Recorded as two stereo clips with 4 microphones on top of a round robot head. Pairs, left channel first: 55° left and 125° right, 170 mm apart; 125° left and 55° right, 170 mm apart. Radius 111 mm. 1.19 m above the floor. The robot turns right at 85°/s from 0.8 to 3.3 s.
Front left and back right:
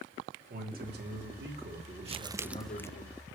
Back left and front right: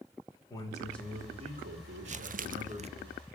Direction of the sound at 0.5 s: 160° right.